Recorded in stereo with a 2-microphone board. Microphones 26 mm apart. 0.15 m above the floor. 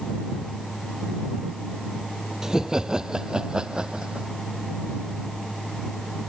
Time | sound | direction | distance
2.4 | laughter | 25° right (ahead or behind) | ?